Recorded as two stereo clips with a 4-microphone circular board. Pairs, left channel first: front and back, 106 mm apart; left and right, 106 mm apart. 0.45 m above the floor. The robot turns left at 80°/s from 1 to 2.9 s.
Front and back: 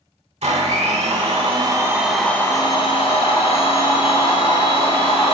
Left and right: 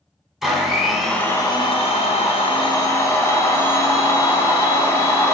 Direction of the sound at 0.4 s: 175° right.